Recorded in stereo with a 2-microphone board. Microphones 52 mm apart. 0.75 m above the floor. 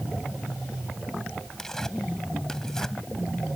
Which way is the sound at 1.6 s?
10° left (ahead or behind).